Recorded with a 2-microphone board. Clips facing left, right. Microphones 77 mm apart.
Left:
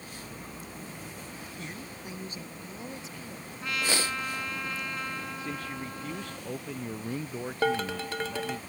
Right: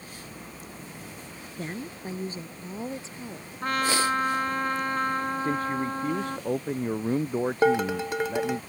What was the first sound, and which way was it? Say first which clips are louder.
A woman speaking: right 10 dB; 40° right (ahead or behind).